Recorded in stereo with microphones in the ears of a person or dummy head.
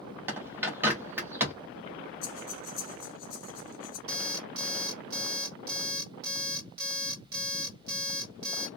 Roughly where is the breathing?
Left.